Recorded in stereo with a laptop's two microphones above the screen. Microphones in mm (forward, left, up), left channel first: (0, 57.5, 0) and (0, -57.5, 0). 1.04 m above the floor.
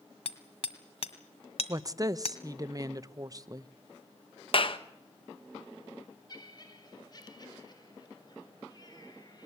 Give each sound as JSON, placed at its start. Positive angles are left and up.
{"t": 0.2, "sound": "hammering", "side_deg": 55, "distance_m": 1.5}
{"t": 1.7, "sound": "a woman speaking", "side_deg": -30, "distance_m": 0.8}
{"t": 4.5, "sound": "a clap", "side_deg": 50, "distance_m": 1.0}
{"t": 6.3, "sound": "laughter", "side_deg": 40, "distance_m": 4.5}